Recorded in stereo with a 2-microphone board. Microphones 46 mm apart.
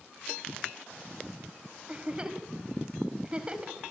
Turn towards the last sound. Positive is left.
turn(degrees=-20)  # may be behind; listen again after turning